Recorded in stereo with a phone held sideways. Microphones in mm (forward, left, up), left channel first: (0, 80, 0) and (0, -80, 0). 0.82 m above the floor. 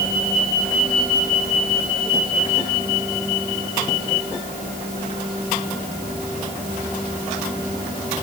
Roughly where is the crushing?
No crushing in this recording.